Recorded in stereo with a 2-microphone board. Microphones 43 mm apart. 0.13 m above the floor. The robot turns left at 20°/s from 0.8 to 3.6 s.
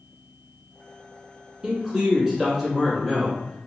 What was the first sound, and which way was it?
A man speaking, 150° right.